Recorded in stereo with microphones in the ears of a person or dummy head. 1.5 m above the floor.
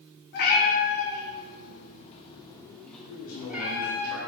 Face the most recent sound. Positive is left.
turn(degrees=85)